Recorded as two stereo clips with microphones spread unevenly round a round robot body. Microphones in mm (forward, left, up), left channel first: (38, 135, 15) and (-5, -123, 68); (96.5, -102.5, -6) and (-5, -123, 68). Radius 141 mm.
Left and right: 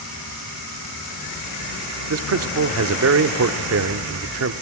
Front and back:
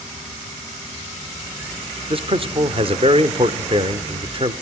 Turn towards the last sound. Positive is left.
turn(degrees=-105)